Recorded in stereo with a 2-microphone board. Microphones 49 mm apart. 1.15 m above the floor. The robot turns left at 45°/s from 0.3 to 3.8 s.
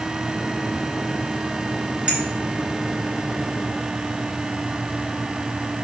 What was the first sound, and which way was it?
A clink, 20° right (ahead or behind).